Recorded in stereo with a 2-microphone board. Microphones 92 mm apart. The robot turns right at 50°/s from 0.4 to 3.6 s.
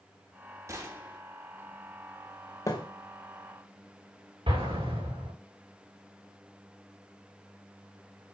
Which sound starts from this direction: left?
A thud, at 2.7 s.